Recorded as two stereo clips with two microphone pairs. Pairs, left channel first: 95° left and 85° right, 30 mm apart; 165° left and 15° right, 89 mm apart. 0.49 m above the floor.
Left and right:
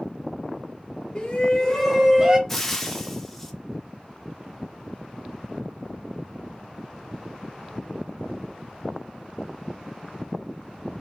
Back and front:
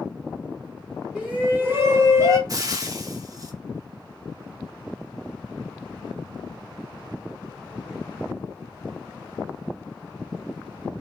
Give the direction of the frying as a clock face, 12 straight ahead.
11 o'clock.